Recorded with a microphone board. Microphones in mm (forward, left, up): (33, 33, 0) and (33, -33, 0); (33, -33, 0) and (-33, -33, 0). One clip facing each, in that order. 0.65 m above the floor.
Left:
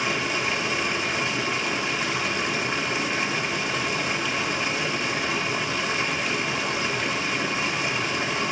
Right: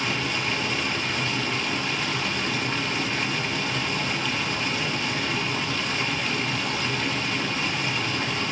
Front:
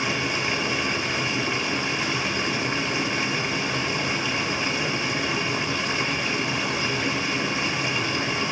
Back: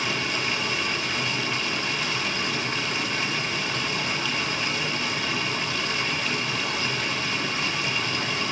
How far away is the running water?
About 0.8 m.